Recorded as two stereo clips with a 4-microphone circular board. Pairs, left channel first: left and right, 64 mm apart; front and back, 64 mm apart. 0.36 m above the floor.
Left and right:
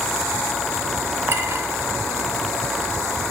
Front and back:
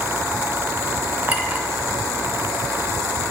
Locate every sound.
1.3 s a clink: 125° right, 0.7 m